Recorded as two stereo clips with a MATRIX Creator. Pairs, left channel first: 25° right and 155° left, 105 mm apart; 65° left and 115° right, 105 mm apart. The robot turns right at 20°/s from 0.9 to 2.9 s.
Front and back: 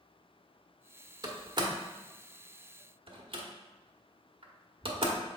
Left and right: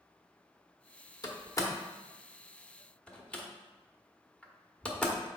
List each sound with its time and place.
1.2 s a door slam: 115° left, 1.0 m; by 5.2 s 145° left, 1.0 m